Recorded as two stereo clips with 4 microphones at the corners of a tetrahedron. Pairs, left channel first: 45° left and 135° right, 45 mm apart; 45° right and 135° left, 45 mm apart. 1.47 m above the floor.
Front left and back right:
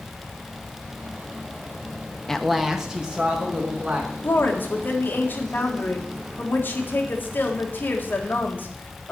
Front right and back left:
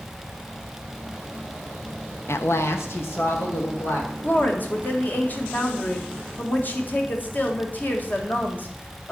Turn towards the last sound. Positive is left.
turn(degrees=5)